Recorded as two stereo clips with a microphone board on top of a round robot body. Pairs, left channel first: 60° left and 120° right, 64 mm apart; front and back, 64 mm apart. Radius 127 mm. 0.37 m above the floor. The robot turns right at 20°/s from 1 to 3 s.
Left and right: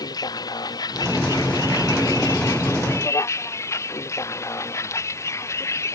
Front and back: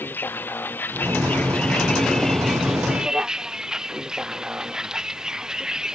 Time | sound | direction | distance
0.0 | a vehicle | 60° left | ?